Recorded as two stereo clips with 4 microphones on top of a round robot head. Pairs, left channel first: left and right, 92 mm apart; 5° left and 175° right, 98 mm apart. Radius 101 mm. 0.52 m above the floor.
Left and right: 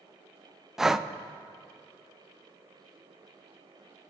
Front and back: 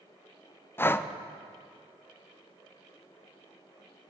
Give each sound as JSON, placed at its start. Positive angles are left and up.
{"t": 0.8, "sound": "breathing", "azimuth_deg": -10, "distance_m": 0.6}